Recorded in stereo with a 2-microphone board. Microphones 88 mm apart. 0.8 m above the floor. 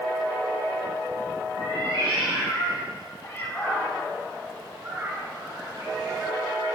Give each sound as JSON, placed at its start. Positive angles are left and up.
{"t": 1.6, "sound": "a cat meowing", "side_deg": 75, "distance_m": 1.4}